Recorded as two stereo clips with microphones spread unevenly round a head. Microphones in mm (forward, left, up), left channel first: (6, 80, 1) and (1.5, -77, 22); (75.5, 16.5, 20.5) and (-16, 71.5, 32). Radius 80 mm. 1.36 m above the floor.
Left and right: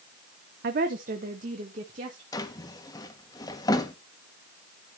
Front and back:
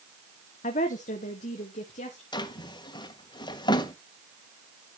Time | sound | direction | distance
0.6 | a woman speaking | 55° right | 0.7 m
2.3 | a drawer | 20° left | 1.3 m